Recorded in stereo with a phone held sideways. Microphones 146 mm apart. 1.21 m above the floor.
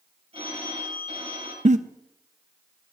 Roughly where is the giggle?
Right.